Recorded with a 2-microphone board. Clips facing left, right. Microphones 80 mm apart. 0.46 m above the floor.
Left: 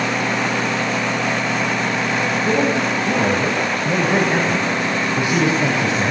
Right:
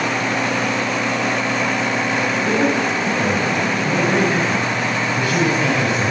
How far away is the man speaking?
About 3.5 m.